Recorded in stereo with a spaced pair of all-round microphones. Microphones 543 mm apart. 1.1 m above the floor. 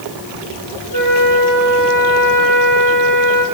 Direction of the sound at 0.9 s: 45° right (ahead or behind).